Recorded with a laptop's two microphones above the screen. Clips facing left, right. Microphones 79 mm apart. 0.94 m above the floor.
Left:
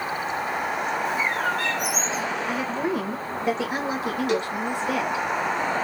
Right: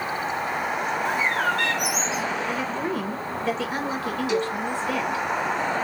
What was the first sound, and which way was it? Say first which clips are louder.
A bird: right 3 dB; 70° right (ahead or behind).